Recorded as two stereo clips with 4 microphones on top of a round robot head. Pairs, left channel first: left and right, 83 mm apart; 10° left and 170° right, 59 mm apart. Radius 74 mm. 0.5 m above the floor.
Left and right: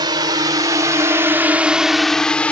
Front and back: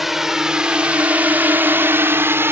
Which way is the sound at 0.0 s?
85° right.